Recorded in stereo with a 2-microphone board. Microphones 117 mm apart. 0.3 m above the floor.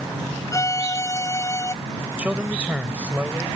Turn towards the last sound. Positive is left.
turn(degrees=-10)  # may be behind; listen again after turning